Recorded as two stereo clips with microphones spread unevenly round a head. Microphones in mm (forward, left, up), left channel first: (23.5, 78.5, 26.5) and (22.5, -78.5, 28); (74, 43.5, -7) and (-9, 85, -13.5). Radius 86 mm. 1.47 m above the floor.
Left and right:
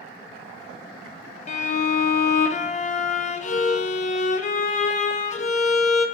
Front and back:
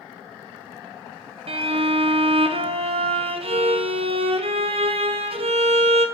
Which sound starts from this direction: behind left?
A violin, at 1.5 s.